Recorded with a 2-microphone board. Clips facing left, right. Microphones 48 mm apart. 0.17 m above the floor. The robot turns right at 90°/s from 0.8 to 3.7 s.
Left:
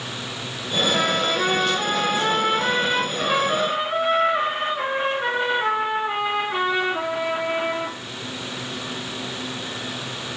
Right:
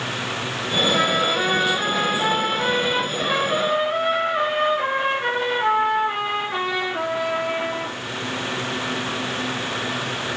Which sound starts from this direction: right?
A trumpet, at 0.9 s.